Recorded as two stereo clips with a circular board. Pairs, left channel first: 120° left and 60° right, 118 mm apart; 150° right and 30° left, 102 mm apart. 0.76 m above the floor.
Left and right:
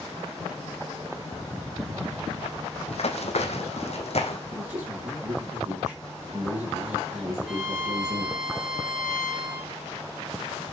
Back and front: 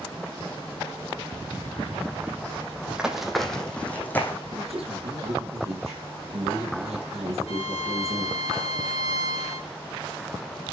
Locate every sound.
2.9 s running footsteps: 110° left, 1.6 m; by 4.4 s 145° left, 2 m
4.5 s a man speaking: 10° left, 6.5 m
7.5 s a violin: 145° right, 1.5 m